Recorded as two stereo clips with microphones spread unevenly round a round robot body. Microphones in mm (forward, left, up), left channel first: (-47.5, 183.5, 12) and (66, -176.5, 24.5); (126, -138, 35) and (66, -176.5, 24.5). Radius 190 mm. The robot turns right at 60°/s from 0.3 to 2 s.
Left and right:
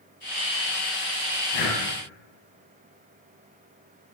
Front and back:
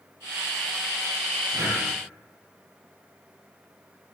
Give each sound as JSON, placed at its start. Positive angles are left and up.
{"t": 1.5, "sound": "breathing", "azimuth_deg": 135, "distance_m": 3.0}